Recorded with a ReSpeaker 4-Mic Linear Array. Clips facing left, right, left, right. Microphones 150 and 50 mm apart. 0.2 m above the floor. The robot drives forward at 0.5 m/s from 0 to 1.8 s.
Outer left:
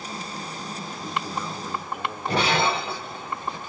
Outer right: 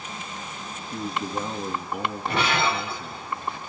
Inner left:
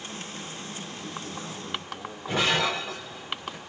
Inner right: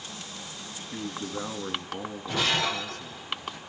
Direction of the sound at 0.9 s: 40° right (ahead or behind).